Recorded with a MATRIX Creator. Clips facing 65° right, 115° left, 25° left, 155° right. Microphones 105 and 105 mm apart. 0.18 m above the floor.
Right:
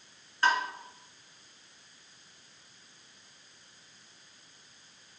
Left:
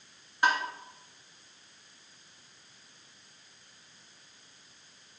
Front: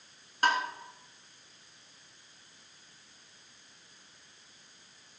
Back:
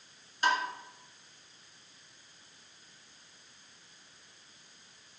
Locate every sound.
0.4 s tapping: 45° left, 2.5 m